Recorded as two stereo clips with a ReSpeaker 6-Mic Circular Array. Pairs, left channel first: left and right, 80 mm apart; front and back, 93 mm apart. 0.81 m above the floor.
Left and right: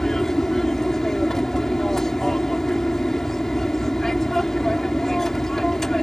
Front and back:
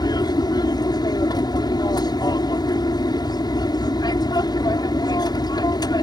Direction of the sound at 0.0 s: 5° left.